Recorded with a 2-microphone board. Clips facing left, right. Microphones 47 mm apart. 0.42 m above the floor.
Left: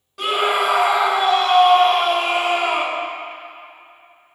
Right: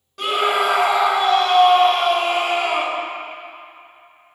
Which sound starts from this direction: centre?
A scream, at 0.2 s.